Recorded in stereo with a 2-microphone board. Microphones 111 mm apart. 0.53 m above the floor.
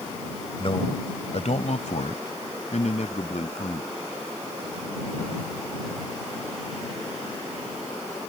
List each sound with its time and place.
0.6 s a man speaking: 50° left (ahead or behind); by 3.9 s 65° left (ahead or behind)